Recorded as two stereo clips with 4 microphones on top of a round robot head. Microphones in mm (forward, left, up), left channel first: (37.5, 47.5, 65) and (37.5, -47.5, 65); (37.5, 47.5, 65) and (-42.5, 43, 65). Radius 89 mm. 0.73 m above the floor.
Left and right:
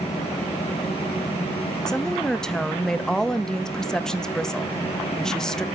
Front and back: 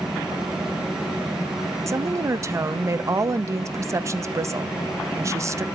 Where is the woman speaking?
170° left, 0.8 m.